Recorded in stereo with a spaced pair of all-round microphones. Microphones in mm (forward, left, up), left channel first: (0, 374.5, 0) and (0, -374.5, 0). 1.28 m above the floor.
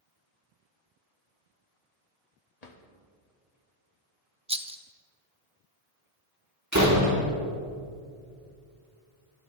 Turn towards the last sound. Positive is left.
turn(degrees=-20)  # may be behind; listen again after turning